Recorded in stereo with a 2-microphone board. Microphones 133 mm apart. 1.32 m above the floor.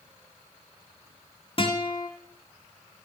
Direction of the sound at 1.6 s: 40° left (ahead or behind).